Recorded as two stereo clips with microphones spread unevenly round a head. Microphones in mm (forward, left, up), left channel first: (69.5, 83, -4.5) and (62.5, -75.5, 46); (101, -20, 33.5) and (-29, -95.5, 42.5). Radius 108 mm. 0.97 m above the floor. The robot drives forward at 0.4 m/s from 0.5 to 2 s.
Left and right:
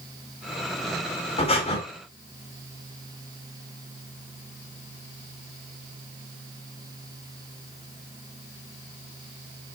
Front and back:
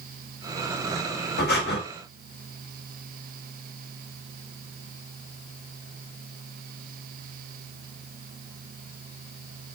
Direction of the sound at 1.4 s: 35° left.